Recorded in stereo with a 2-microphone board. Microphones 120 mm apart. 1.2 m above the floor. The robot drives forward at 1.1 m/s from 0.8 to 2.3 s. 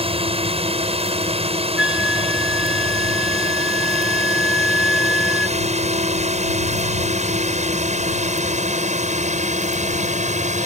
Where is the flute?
10° right (ahead or behind); by 5.6 s 5° right (ahead or behind).